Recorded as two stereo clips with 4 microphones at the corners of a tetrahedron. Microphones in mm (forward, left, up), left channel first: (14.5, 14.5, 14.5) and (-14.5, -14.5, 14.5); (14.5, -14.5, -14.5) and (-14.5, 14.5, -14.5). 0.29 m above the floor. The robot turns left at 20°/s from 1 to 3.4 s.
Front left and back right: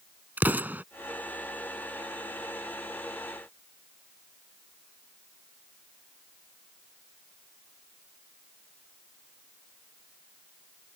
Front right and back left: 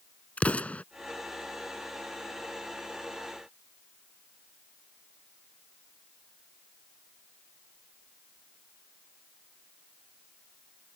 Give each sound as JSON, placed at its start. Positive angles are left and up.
{"t": 0.4, "sound": "an explosion", "azimuth_deg": -100}